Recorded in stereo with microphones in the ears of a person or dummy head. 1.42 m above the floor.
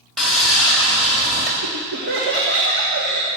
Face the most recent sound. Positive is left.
turn(degrees=-55)  # may be behind; listen again after turning